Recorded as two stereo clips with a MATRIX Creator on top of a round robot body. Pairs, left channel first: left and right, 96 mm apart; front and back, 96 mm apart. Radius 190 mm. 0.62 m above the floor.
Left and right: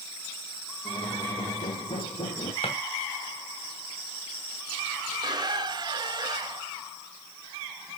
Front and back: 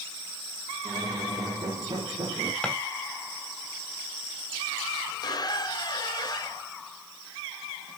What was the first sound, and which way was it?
A squeak, 130° left.